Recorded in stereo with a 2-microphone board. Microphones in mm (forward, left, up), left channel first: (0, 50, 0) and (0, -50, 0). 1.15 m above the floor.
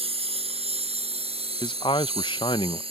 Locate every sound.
0.0 s a lawn mower: 75° right (ahead or behind); by 2.9 s 70° right (ahead or behind)
1.6 s a man speaking: 55° left (ahead or behind)